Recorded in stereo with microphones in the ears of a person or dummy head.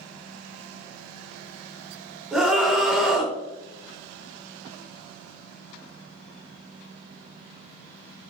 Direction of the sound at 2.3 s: 10° right (ahead or behind).